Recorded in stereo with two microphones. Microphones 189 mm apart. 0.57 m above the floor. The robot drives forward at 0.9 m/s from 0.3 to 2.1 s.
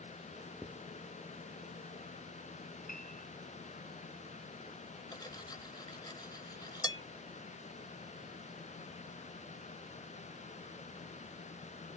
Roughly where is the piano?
Left.